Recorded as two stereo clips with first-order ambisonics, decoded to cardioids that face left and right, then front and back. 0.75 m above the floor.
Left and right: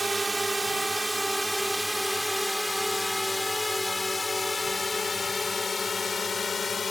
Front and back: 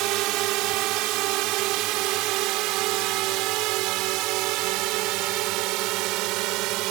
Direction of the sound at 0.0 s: 170° right.